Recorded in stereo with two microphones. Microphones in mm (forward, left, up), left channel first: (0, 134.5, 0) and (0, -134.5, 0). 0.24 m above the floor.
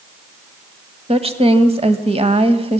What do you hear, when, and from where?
1.1 s a woman speaking: 20° right (ahead or behind), 1.6 m